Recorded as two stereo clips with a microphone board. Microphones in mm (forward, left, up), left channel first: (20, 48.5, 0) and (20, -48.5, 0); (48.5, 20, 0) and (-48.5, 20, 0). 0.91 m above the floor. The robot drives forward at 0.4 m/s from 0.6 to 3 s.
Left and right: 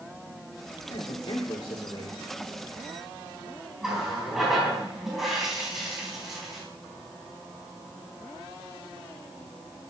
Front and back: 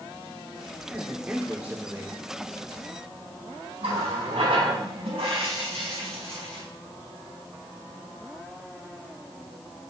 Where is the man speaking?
105° left, 2.5 m; by 2.2 s 115° left, 2.5 m.